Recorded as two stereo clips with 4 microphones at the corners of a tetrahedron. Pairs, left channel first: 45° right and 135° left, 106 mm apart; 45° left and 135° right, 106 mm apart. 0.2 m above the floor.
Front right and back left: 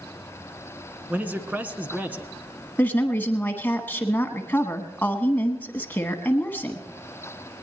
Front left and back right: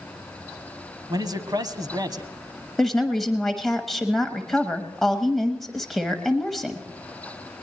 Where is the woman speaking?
40° right, 1.0 m.